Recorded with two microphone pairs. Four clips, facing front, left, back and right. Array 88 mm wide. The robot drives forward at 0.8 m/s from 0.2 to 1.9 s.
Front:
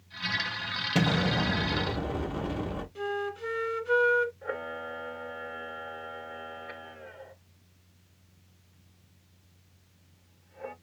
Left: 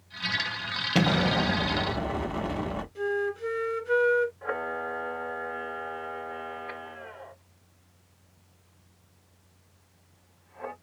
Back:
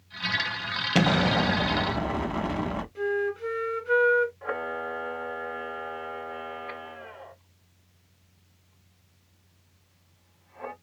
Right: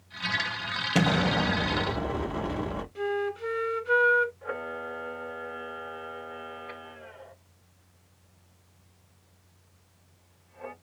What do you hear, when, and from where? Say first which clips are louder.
0.9 s an explosion: left 1 dB, back 4 dB; straight behind, 0.8 m
3.0 s a flute: left 1 dB, back 6 dB; 90° right, 1.5 m
4.4 s a camera shutter: left 3 dB, back 4 dB; 140° left, 1.1 m